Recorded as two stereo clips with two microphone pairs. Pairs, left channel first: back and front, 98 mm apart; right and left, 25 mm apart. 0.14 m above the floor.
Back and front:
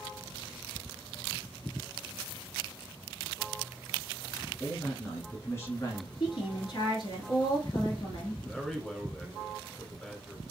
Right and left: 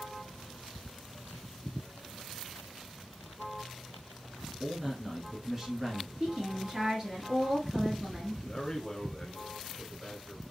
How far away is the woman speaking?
About 2.0 m.